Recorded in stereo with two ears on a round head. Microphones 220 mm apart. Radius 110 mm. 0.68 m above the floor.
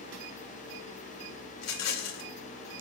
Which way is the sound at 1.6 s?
75° left (ahead or behind).